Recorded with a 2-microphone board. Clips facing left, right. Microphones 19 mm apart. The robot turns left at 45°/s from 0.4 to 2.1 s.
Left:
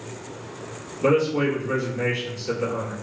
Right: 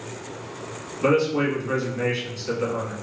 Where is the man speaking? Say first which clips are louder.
Even; 85° right, 1.2 m; by 2.9 s 130° right, 1.2 m.